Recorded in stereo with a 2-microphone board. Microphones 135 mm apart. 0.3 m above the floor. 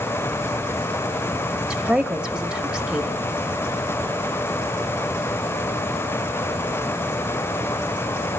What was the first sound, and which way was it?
A woman speaking, 5° right (ahead or behind).